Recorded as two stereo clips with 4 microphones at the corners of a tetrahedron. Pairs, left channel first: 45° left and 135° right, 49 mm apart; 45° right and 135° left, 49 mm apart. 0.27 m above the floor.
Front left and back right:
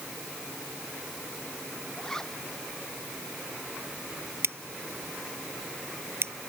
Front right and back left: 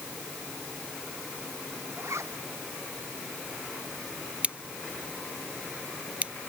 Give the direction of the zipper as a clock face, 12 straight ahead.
8 o'clock.